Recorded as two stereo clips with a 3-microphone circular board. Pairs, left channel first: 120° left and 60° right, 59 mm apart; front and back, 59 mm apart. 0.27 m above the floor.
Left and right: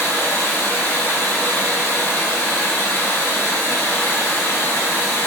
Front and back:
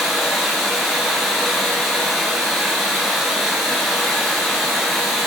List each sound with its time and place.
0.0 s running water: 90° left, 0.8 m